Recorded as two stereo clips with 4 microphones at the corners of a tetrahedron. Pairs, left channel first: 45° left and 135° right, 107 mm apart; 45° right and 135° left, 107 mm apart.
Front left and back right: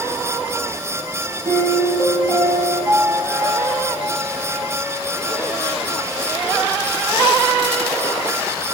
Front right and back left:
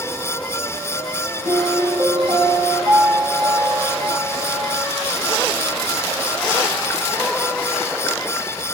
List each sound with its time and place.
1.4 s a piano: 115° left, 4.5 m